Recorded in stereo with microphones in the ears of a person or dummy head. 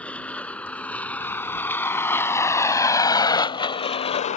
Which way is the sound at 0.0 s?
15° left (ahead or behind).